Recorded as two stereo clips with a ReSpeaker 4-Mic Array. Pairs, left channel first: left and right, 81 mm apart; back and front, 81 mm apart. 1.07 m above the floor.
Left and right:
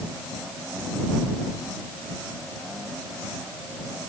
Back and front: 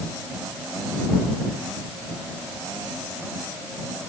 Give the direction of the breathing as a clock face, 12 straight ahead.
I don't hear breathing.